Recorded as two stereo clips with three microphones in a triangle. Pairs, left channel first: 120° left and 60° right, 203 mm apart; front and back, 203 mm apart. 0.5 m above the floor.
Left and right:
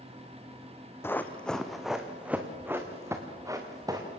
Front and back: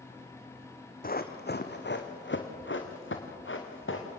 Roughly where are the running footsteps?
Ahead left.